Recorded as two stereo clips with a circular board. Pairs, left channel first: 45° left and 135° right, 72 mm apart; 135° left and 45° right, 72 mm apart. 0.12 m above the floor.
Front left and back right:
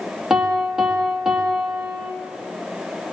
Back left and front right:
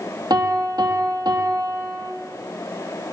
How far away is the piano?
About 3.5 m.